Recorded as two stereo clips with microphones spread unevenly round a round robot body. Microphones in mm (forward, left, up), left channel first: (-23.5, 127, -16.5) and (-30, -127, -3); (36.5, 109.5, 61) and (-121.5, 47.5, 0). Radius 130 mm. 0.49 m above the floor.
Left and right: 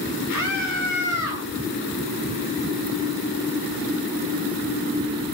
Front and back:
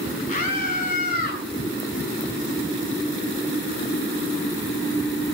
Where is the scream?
60° left, 6.5 m; by 1.4 s 55° left, 6.5 m.